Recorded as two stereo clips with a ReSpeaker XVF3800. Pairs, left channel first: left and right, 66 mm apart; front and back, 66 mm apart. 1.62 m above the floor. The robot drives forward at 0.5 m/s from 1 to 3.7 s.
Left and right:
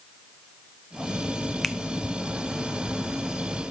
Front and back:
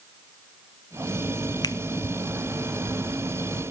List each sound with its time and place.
1.6 s a finger snap: straight ahead, 0.6 m